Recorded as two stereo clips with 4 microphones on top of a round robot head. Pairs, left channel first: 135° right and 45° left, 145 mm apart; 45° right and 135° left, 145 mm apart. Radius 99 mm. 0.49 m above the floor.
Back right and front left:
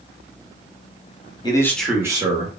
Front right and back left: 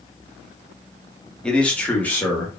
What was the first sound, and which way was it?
A man speaking, 125° right.